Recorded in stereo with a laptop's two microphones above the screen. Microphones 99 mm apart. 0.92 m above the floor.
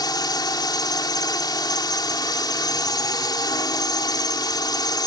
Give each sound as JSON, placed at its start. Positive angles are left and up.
{"t": 0.0, "sound": "a drone", "side_deg": 40}